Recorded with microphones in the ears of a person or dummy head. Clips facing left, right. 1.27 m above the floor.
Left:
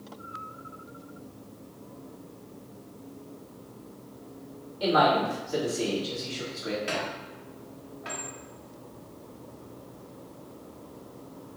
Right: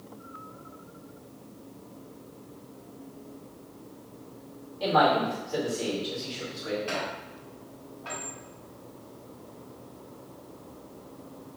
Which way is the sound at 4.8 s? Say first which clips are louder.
Even; 15° left (ahead or behind).